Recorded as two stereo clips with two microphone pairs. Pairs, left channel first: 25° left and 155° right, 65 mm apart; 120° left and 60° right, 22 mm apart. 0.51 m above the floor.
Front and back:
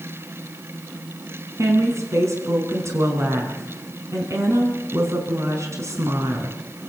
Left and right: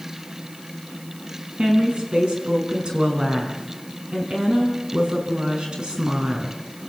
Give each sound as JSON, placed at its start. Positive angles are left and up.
{"t": 1.6, "sound": "a woman speaking", "azimuth_deg": -110, "distance_m": 4.5}